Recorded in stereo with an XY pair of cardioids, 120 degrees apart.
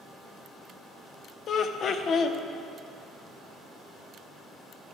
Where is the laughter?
50° left, 0.8 m.